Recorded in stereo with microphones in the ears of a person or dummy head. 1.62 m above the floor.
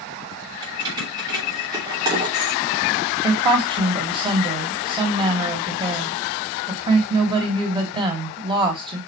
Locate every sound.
0.6 s keys jangling: 20° right (ahead or behind), 4.5 m
3.2 s a woman speaking: 25° right (ahead or behind), 2.0 m